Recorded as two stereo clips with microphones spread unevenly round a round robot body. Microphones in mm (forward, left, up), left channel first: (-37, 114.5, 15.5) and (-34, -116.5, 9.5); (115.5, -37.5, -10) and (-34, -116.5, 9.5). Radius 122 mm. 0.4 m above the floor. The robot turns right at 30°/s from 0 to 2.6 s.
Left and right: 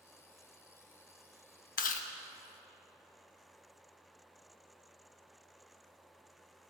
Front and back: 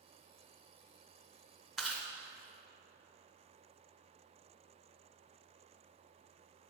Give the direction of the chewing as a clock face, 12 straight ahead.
8 o'clock.